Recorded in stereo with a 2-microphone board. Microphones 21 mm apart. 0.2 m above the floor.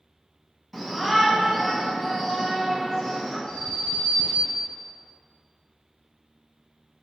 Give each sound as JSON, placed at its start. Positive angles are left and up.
{"t": 0.7, "sound": "a shout", "side_deg": 5, "distance_m": 1.2}
{"t": 3.5, "sound": "an alarm", "side_deg": 50, "distance_m": 1.9}